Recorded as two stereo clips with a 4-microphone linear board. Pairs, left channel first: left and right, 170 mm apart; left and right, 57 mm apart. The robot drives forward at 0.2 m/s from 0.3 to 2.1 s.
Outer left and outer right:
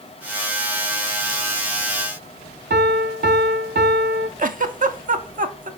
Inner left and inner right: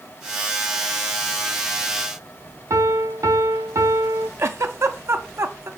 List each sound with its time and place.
2.7 s a piano: 75° right (ahead or behind), 0.6 m
4.4 s a giggle: 55° right (ahead or behind), 0.6 m